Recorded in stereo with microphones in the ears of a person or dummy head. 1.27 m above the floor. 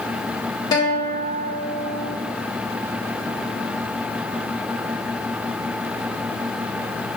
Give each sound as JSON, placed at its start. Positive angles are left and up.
{"t": 0.7, "sound": "a guitar", "side_deg": 15, "distance_m": 1.0}